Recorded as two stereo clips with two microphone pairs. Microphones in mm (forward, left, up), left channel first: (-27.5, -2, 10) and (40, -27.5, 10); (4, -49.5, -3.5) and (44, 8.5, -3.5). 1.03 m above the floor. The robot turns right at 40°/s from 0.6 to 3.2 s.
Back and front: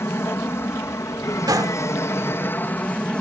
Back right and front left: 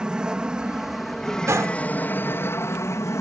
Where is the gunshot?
5° left; by 1.8 s 20° left.